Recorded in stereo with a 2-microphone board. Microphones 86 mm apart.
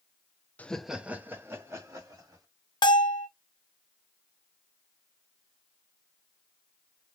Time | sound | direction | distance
0.6 | laughter | 20° left (ahead or behind) | 0.5 m
2.8 | a bell | 55° left (ahead or behind) | 0.8 m